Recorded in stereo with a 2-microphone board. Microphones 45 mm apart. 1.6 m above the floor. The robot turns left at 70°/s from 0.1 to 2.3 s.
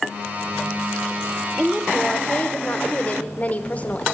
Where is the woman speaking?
170° right, 0.9 m; by 4.0 s 135° left, 0.9 m.